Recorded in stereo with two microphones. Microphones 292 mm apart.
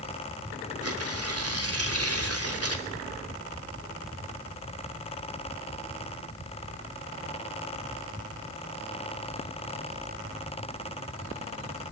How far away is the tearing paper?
About 2.5 m.